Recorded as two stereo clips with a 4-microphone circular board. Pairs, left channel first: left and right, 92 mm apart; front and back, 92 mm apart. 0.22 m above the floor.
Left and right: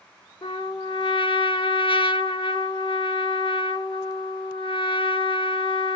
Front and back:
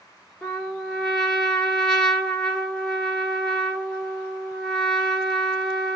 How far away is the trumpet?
About 0.7 m.